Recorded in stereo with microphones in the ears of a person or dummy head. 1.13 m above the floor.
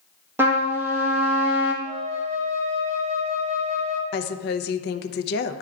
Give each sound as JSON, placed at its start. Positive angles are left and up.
{"t": 0.4, "sound": "a trumpet", "side_deg": -15, "distance_m": 1.3}
{"t": 1.8, "sound": "a flute", "side_deg": -40, "distance_m": 1.1}
{"t": 4.1, "sound": "a woman speaking", "side_deg": 55, "distance_m": 0.6}